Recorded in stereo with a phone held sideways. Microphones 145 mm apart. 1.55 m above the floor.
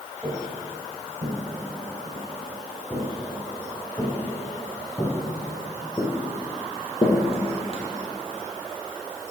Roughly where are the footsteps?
Centre.